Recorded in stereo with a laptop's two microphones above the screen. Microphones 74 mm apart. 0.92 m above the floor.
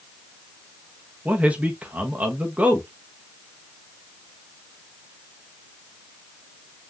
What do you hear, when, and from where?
1.2 s a man speaking: 20° right (ahead or behind), 0.8 m